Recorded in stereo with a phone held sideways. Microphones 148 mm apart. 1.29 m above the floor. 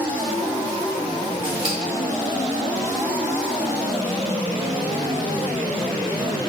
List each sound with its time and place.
1.4 s scissors: 35° right (ahead or behind), 2 m